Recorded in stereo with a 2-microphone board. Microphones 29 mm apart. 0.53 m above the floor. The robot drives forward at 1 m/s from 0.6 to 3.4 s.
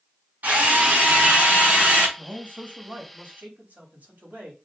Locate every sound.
0.4 s a drill: 75° right (ahead or behind), 5 m
2.2 s a man speaking: 70° right (ahead or behind), 3.5 m; by 4.5 s 65° right (ahead or behind), 3.5 m